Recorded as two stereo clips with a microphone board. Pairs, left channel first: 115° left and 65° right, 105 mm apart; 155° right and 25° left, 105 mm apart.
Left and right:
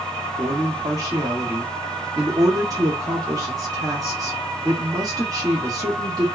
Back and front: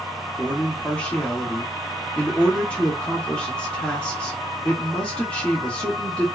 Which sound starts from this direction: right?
A man speaking, at 0.4 s.